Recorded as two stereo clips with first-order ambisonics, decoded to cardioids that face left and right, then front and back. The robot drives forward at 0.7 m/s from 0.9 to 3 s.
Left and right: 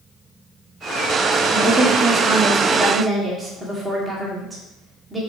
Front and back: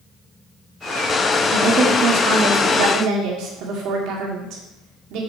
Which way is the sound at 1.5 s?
155° right.